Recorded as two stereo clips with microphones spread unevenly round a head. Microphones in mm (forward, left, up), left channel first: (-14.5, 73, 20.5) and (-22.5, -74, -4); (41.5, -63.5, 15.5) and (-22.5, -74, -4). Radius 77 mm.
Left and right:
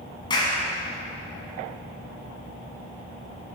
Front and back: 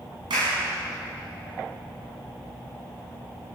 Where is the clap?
145° left, 7 m.